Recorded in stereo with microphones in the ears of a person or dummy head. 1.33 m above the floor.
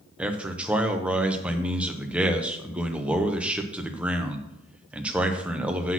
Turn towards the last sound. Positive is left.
turn(degrees=-5)  # may be behind; listen again after turning